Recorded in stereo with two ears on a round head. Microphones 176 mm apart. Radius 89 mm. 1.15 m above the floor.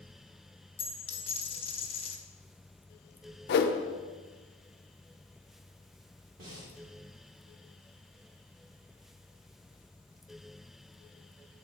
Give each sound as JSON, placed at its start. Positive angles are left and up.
{"t": 0.8, "sound": "a dropped coin", "side_deg": 30, "distance_m": 0.7}
{"t": 3.5, "sound": "a whoosh", "side_deg": 55, "distance_m": 0.5}
{"t": 6.4, "sound": "breathing", "side_deg": -45, "distance_m": 1.9}